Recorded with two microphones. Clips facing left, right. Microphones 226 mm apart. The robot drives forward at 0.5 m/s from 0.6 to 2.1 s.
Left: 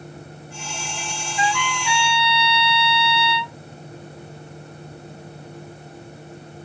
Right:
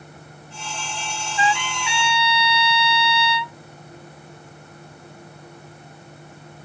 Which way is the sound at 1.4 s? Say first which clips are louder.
Right 1 dB; 55° left (ahead or behind).